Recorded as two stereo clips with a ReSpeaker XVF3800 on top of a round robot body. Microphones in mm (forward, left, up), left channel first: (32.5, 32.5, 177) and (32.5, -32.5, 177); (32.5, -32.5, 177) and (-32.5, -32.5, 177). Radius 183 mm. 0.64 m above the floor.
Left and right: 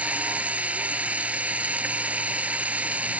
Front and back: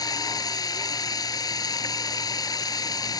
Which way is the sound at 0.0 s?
20° right.